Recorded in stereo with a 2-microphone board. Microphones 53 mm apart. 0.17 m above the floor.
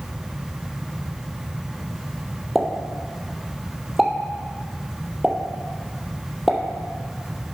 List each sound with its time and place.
2.5 s a pop: centre (ahead or behind), 1.2 m